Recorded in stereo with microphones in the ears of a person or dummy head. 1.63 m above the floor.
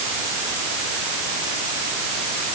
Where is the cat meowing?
I don't hear a cat meowing.